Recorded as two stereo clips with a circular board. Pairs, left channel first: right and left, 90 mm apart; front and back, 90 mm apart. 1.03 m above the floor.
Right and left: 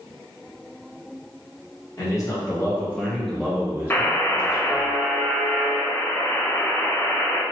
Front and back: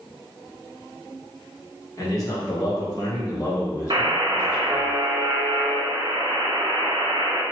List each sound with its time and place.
2.0 s a man speaking: 45° right, 1.4 m; by 4.9 s 75° left, 1.2 m
3.9 s a buzzer: 155° right, 0.5 m